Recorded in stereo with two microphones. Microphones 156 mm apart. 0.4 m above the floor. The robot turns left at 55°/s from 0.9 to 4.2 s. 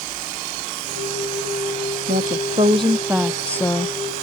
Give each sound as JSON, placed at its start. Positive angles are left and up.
{"t": 2.1, "sound": "a woman speaking", "azimuth_deg": -110}